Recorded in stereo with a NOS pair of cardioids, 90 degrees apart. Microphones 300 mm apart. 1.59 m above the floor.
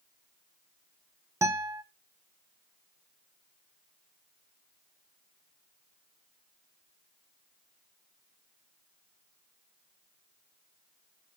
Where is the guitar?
10° right, 1.1 m.